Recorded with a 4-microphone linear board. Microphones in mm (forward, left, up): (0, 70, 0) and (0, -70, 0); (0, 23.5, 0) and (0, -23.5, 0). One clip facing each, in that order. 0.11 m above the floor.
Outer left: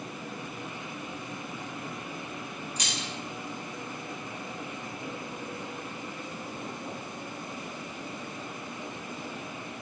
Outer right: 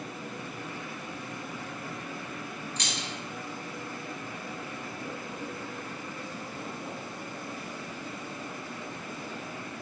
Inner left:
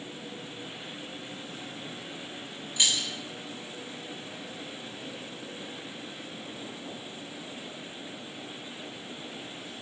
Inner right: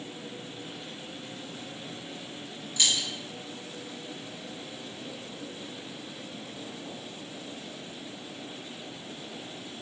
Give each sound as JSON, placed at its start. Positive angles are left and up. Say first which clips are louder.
{"t": 2.8, "sound": "keys jangling", "louder": "even, even", "side_deg": 10, "distance_m": 1.2}